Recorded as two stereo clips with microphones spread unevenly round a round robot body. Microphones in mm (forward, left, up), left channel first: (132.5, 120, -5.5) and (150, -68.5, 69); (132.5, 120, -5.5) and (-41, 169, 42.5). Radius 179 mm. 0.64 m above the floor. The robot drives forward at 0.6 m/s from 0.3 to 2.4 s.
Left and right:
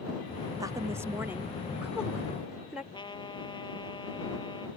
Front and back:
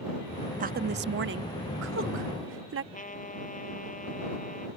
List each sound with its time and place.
0.6 s a woman speaking: 175° left; by 2.8 s straight behind
2.9 s a trumpet: 30° left